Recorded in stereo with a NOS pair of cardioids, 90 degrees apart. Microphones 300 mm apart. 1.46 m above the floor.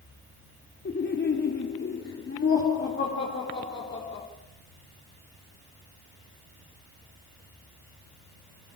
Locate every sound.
0.8 s laughter: 40° left, 3 m; by 4.2 s 45° left, 5 m